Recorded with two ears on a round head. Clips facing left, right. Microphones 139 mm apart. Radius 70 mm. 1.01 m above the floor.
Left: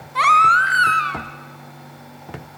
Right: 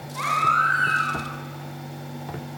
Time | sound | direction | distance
0.1 | a baby crying | 75° left (ahead or behind) | 2.5 m